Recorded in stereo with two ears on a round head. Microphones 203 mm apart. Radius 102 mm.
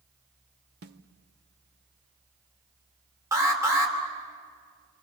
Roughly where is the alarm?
Centre.